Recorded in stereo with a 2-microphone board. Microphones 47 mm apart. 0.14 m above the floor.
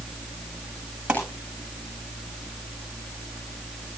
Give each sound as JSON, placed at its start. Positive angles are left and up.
{"t": 1.1, "sound": "a pop", "side_deg": -20, "distance_m": 8.0}